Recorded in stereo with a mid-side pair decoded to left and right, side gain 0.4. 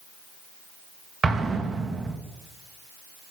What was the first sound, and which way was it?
An explosion, 45° right.